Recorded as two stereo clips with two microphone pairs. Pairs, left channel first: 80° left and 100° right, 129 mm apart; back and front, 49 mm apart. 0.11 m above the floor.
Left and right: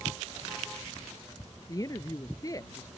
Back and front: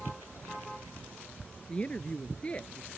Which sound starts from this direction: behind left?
A woman speaking, at 1.7 s.